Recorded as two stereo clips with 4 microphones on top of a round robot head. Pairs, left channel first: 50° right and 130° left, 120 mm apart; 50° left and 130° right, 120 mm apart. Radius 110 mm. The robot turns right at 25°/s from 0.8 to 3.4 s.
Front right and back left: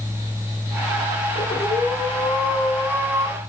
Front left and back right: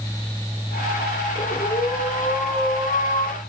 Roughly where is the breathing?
Ahead.